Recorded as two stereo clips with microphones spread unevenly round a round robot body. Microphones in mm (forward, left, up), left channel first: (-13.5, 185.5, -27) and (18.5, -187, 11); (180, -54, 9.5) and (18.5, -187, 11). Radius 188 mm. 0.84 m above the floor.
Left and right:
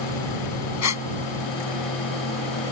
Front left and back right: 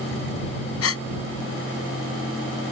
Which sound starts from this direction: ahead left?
A gasp, at 0.8 s.